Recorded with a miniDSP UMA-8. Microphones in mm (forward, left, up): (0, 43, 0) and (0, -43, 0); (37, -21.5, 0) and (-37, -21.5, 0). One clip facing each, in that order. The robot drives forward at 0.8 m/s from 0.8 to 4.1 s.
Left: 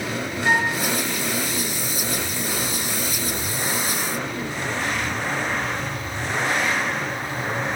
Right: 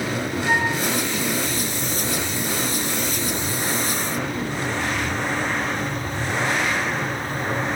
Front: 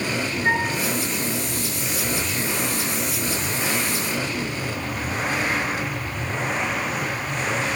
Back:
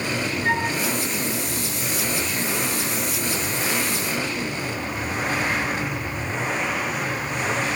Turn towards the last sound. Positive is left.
turn(degrees=110)